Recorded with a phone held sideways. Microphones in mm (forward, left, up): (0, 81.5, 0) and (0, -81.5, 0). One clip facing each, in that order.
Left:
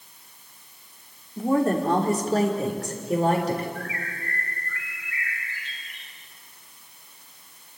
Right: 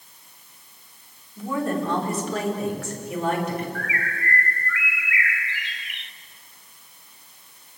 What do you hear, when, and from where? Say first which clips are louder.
1.4 s a woman speaking: left 4 dB; 40° left (ahead or behind), 3.5 m; by 3.6 s 35° left (ahead or behind), 5 m
3.8 s a bird: right 3 dB; 80° right, 0.6 m